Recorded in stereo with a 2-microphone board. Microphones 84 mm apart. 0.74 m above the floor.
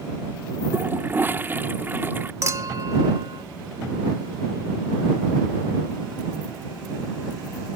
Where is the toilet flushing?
25° right (ahead or behind).